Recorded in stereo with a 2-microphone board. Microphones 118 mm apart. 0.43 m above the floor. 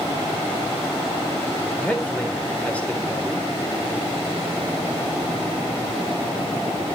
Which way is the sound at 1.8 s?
10° left (ahead or behind).